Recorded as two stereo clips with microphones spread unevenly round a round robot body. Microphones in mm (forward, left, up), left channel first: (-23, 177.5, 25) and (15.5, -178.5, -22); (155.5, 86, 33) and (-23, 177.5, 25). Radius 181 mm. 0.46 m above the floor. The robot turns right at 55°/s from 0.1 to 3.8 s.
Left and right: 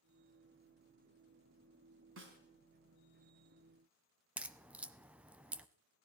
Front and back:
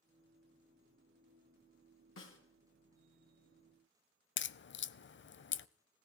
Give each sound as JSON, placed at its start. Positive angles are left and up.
{"t": 2.2, "sound": "a snare drum", "azimuth_deg": -30, "distance_m": 4.0}
{"t": 4.4, "sound": "a crack", "azimuth_deg": 5, "distance_m": 0.7}